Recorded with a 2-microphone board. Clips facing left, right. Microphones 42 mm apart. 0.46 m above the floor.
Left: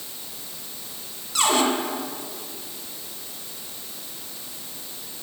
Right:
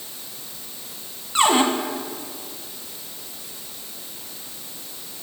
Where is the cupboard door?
30° right (ahead or behind), 1.7 m.